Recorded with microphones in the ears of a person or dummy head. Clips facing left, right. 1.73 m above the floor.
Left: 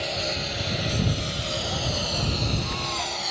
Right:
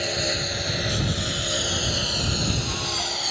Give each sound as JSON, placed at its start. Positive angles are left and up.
{"t": 0.0, "sound": "a lawn mower", "side_deg": -20}